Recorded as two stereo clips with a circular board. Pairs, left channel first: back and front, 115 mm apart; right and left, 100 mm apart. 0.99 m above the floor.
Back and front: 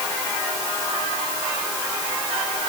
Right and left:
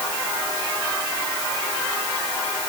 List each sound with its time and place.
Only background noise.